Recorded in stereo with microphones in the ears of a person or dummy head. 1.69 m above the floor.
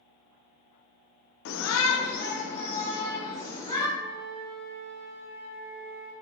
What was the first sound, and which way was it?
A shout, 65° left (ahead or behind).